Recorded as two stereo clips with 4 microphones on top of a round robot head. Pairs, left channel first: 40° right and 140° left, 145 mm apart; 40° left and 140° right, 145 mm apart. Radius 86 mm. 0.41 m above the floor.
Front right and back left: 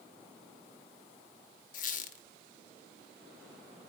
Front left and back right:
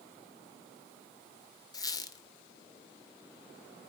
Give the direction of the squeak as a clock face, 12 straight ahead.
1 o'clock.